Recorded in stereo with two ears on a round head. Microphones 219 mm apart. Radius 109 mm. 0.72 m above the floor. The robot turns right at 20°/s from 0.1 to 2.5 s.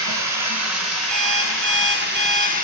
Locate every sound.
0.0 s running water: 85° right, 2 m; by 2.6 s 35° right, 2 m
1.1 s an alarm clock: 80° right, 7 m; by 2.5 s 75° right (ahead or behind), 7 m